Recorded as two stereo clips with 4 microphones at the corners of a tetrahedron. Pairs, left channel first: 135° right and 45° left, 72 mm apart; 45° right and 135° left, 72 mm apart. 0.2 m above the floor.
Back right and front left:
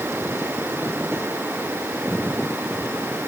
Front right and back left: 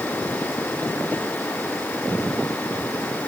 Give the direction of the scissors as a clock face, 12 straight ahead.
I don't hear scissors.